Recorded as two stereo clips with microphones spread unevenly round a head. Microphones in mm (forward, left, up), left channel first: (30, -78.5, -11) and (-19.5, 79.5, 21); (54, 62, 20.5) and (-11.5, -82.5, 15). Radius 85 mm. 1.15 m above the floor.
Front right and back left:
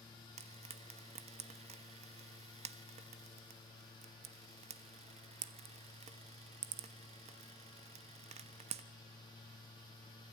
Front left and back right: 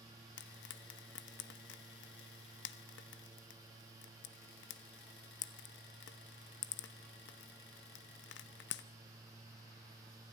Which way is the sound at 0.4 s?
55° left.